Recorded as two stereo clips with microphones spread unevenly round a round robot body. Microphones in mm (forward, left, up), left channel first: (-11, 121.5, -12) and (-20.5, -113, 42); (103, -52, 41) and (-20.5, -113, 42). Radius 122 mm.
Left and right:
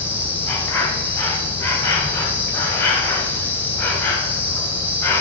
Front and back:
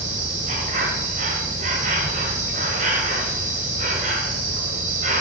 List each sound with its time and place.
0.0 s an insect: 165° left, 1.9 m